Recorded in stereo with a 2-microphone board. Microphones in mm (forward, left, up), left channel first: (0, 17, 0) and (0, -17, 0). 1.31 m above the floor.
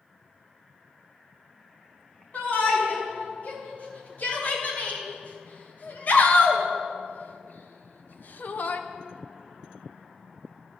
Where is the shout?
45° left (ahead or behind), 4.5 m.